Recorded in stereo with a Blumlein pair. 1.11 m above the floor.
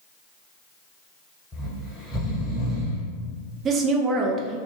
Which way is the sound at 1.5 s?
20° left.